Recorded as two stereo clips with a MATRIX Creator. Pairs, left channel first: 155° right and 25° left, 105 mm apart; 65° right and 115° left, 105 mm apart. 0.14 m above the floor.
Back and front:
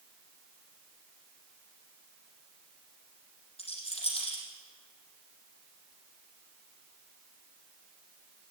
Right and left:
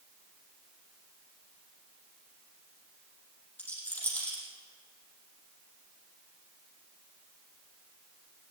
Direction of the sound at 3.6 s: 140° right.